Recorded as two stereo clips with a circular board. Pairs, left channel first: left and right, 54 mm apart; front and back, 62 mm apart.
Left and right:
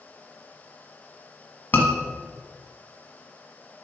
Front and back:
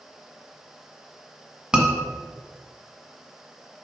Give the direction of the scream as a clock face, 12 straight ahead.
8 o'clock.